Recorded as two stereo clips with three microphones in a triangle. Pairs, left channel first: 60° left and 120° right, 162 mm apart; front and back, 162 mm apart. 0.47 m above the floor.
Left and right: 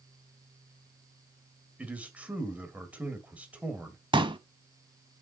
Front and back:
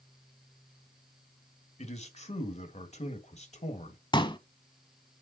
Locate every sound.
1.8 s a man speaking: 40° right, 2 m
4.1 s a pop: 60° right, 0.9 m